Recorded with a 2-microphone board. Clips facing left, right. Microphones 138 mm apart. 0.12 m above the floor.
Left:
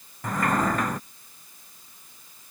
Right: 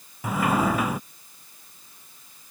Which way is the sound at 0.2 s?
5° right (ahead or behind).